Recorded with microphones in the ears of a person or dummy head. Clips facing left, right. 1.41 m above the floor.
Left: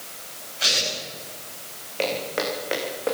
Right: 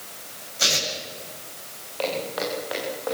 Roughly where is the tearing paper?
Right.